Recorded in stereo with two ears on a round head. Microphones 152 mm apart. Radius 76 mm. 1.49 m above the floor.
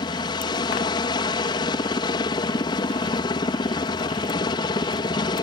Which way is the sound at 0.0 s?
25° left (ahead or behind).